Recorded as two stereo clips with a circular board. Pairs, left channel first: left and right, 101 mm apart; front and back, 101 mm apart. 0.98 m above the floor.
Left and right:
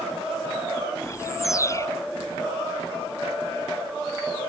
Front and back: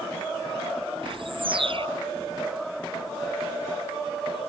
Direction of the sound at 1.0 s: 150° left.